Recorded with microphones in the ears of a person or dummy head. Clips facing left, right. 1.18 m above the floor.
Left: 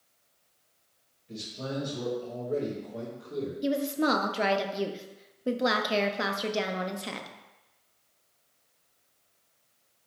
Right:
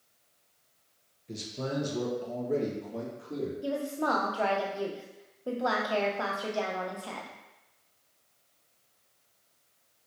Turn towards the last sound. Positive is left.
turn(degrees=25)  # may be behind; listen again after turning